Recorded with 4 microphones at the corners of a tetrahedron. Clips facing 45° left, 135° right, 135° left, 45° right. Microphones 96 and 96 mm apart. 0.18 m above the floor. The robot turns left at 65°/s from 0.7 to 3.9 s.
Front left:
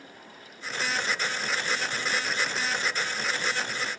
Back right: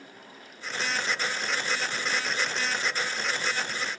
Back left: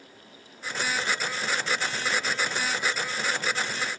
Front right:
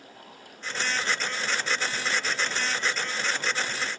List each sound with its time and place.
Only background noise.